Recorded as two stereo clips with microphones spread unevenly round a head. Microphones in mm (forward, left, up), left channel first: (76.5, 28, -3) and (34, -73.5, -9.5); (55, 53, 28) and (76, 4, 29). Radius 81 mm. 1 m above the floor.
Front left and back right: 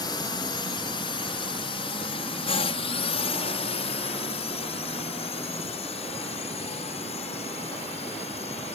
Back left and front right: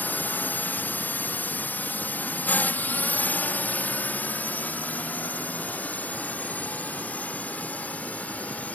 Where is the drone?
90° left; by 8.8 s 55° left.